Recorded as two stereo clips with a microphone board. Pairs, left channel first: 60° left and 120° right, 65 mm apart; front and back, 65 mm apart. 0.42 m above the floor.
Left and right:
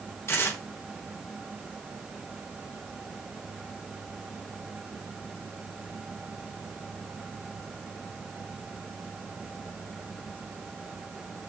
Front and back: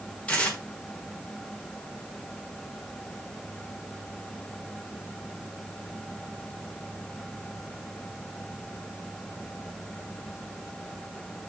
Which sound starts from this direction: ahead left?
Tearing paper, at 0.3 s.